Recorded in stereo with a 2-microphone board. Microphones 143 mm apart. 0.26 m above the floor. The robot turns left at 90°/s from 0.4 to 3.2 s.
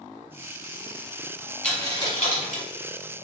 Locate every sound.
1.6 s a dropped coin: 5° left (ahead or behind), 1.1 m; by 2.6 s 65° left (ahead or behind), 1.1 m